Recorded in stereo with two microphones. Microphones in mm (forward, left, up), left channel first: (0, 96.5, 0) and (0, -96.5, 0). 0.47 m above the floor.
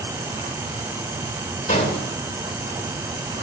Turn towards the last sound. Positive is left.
turn(degrees=40)  # may be behind; listen again after turning